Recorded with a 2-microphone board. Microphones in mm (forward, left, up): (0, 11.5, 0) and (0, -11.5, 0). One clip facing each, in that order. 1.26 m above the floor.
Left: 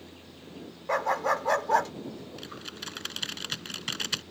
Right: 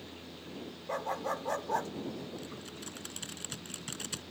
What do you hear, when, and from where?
0.9 s a dog barking: 65° left (ahead or behind)
2.4 s typing on a keyboard: 45° left (ahead or behind)